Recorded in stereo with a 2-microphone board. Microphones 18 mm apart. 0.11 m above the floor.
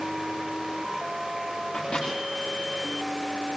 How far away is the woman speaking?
I don't hear a woman speaking.